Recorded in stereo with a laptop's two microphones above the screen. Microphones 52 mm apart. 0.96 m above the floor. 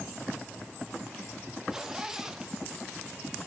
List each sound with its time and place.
1.7 s a zipper: 10° right (ahead or behind), 1.0 m